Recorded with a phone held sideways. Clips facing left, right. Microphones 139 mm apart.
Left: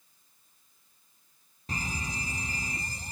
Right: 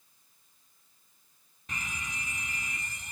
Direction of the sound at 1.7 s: 30° left (ahead or behind).